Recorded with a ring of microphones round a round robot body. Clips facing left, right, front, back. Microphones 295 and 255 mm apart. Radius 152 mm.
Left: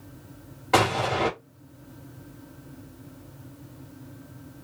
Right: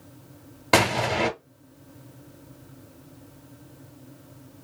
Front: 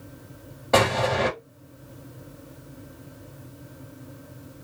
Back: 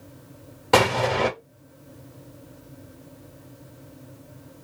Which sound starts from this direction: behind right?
An explosion, at 0.7 s.